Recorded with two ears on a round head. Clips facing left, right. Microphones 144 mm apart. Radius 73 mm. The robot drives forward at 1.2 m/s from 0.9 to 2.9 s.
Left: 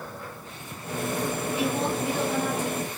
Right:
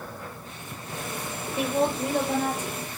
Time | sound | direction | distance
1.6 | a woman speaking | 50° right (ahead or behind) | 6 m